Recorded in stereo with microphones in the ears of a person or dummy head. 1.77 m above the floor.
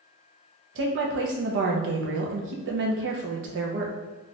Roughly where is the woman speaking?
Right.